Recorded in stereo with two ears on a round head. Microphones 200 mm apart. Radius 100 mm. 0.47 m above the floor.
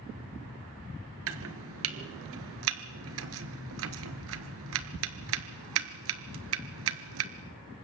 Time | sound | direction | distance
1.3 | chopping | 65° right (ahead or behind) | 1.6 m